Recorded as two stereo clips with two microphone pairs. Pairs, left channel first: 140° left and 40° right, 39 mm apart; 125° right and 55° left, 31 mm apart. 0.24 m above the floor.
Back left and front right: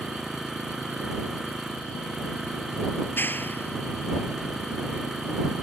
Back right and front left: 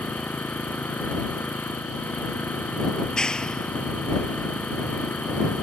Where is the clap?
170° left.